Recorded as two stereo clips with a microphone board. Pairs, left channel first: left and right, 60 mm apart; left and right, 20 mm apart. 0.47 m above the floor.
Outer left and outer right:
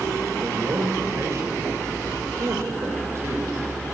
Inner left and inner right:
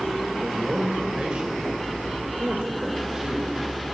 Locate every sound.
0.4 s a man speaking: 55° right (ahead or behind), 2 m